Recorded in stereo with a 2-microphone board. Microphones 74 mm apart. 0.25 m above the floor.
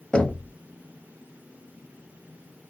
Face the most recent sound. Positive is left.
turn(degrees=15)  # may be behind; listen again after turning